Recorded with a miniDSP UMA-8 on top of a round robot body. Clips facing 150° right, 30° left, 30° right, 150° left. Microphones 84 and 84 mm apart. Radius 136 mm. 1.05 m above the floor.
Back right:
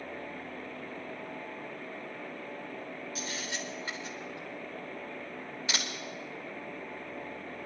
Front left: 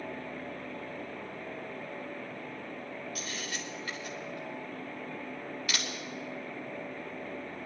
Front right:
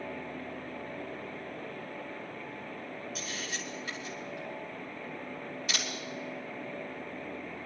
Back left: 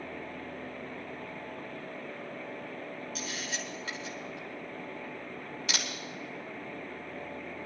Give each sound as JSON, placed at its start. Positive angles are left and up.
{"t": 3.1, "sound": "a camera shutter", "azimuth_deg": 140, "distance_m": 1.4}